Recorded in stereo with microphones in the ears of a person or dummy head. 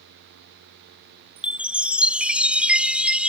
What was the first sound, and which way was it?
A chime, 5° right (ahead or behind).